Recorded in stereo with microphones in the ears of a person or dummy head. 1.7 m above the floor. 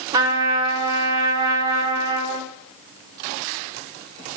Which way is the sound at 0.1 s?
20° right (ahead or behind).